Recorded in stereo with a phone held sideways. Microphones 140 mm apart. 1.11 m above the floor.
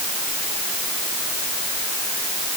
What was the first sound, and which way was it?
Only background noise.